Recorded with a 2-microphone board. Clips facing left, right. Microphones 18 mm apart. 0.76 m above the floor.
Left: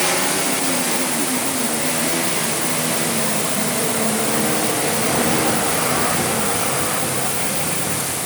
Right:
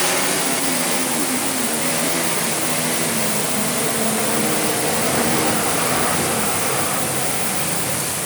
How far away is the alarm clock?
No alarm clock in this recording.